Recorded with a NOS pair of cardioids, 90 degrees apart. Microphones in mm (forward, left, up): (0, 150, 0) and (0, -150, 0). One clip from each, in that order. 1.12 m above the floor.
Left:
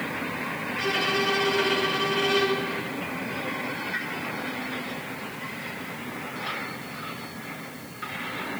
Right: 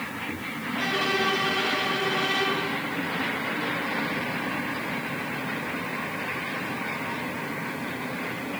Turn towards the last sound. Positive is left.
turn(degrees=20)